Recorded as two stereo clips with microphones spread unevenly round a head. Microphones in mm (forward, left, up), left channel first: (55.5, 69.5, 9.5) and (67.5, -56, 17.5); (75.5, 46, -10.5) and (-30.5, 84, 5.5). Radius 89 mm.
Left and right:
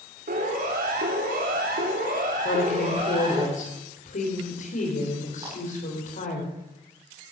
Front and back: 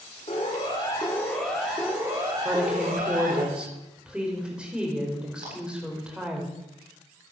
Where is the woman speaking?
80° left, 4.5 m.